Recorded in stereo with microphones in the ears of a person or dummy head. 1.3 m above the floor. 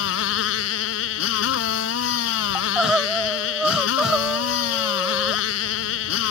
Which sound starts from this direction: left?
A motorcycle, at 0.0 s.